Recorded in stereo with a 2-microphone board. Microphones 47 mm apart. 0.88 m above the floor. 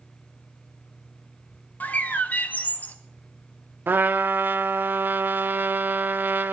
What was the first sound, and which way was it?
A bird, 35° left (ahead or behind).